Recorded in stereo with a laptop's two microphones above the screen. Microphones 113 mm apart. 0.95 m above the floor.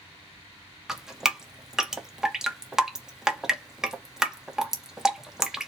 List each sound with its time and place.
0.9 s dripping: 5° right (ahead or behind), 0.8 m